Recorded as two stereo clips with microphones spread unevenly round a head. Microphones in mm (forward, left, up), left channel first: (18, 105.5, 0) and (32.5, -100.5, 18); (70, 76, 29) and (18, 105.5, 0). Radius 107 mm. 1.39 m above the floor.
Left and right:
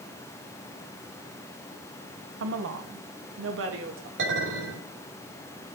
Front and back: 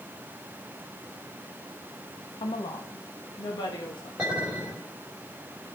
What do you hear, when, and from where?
2.4 s a woman speaking: 60° right, 1.3 m
4.2 s a clink: 125° right, 5.5 m